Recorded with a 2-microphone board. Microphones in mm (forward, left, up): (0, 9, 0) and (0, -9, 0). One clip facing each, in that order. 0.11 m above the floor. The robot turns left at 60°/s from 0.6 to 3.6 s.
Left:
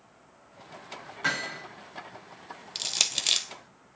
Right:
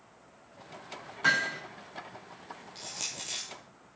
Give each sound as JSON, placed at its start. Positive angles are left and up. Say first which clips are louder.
{"t": 1.2, "sound": "hammering", "louder": "right 3 dB", "side_deg": 5, "distance_m": 4.5}
{"t": 2.8, "sound": "crushing", "louder": "left 11 dB", "side_deg": 55, "distance_m": 0.6}